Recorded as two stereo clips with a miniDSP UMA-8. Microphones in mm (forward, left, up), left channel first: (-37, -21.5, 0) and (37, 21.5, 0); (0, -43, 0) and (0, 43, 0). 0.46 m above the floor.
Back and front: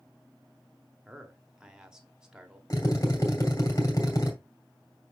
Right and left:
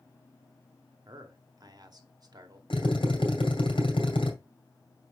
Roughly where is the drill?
Right.